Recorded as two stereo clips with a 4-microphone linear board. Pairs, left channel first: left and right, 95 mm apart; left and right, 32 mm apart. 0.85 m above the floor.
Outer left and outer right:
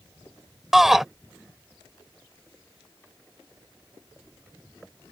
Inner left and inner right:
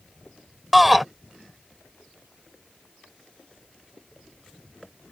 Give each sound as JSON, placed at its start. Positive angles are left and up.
{"t": 0.7, "sound": "a shout", "side_deg": -5}